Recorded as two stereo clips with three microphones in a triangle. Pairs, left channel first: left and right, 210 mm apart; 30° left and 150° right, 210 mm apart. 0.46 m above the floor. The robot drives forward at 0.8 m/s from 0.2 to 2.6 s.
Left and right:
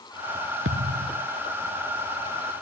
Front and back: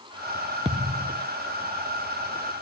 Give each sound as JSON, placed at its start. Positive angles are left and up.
{"t": 0.7, "sound": "a thud", "azimuth_deg": -85}